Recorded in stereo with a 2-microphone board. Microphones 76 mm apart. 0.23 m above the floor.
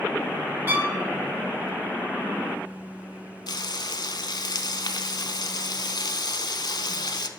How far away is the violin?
About 0.9 m.